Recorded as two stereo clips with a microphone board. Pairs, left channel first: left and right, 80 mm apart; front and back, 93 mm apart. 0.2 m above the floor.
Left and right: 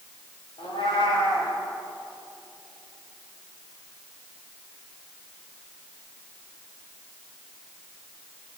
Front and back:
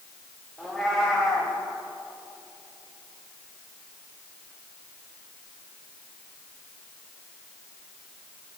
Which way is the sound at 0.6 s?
90° left.